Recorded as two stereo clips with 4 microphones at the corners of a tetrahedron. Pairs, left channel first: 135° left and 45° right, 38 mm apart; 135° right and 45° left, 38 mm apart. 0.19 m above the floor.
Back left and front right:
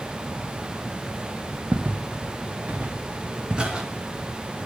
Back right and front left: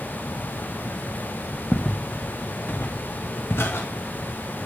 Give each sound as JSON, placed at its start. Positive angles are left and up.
{"t": 1.7, "sound": "footsteps", "azimuth_deg": -75, "distance_m": 1.6}